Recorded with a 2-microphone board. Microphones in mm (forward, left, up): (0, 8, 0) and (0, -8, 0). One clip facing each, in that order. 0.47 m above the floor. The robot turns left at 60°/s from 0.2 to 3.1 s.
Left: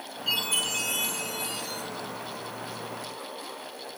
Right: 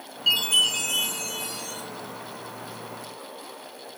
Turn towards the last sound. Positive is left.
turn(degrees=120)